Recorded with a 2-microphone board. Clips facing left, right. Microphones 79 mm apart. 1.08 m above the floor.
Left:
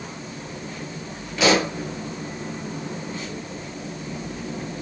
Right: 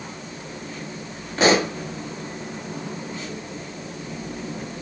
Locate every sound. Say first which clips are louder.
1.4 s a pop: right 1 dB; 40° right (ahead or behind), 7 m